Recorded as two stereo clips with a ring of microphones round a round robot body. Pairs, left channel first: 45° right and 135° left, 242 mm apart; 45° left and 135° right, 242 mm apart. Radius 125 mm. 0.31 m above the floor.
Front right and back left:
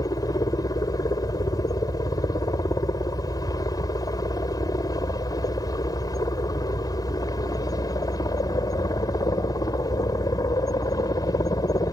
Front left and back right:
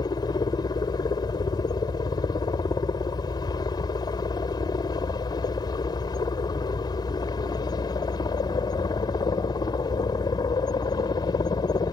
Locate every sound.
0.0 s a helicopter: 5° left